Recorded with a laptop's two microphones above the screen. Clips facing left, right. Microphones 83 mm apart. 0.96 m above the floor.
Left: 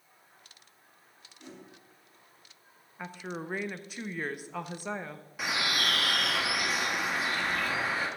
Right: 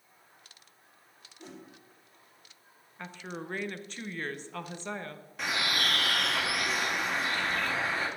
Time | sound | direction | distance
1.4 | a whoosh | 35° right (ahead or behind) | 2.5 m
3.0 | a woman speaking | 10° left (ahead or behind) | 0.6 m
5.4 | a bird | 5° left (ahead or behind) | 1.4 m